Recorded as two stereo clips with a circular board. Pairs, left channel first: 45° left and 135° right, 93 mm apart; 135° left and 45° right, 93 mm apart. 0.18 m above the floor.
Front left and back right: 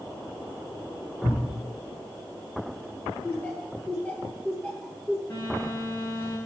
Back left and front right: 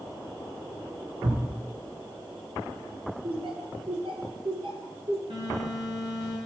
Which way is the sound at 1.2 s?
25° right.